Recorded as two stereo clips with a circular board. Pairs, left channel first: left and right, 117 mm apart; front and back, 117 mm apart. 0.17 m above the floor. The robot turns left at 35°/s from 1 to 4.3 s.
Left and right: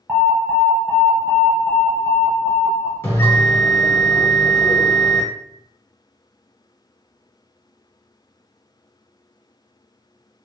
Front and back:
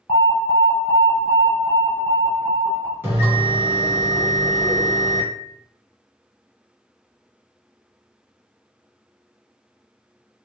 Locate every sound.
0.1 s an alarm: 20° right, 1.2 m; by 2.9 s 85° right, 1.2 m
3.0 s a bell: 130° left, 1.3 m; by 5.3 s 85° left, 1.3 m